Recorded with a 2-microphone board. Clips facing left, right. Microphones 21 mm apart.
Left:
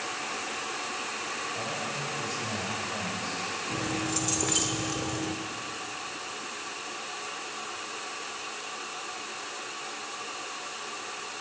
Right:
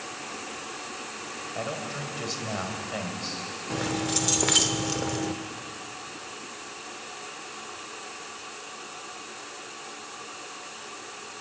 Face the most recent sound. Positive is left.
turn(degrees=-45)  # may be behind; listen again after turning